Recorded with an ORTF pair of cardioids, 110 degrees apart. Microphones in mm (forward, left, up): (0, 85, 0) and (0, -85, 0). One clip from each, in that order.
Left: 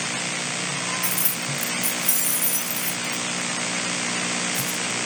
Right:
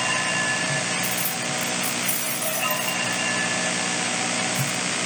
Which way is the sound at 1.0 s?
35° left.